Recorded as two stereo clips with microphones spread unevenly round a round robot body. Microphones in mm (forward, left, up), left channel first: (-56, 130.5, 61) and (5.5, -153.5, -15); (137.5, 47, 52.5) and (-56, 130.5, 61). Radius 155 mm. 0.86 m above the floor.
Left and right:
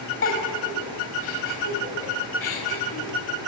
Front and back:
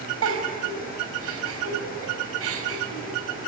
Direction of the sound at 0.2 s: 155° left.